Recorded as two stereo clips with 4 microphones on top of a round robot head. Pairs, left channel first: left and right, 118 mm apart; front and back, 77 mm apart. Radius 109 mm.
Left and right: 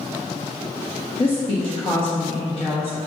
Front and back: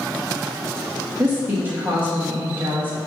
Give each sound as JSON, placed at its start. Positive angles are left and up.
{"t": 1.2, "sound": "a woman speaking", "azimuth_deg": 120, "distance_m": 1.2}